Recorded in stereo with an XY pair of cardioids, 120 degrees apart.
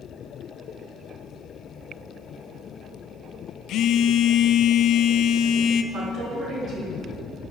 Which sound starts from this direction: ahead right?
A woman speaking, at 5.9 s.